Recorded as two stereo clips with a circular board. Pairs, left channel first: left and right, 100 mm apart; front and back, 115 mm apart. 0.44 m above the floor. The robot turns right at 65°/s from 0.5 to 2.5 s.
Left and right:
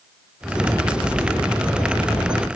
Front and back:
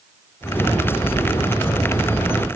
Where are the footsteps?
5° right, 2.5 m; by 2.4 s 115° left, 1.9 m.